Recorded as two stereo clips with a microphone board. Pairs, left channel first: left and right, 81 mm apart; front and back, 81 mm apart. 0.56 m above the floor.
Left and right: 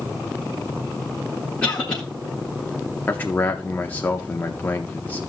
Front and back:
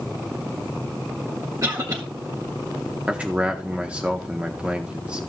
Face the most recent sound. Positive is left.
turn(degrees=125)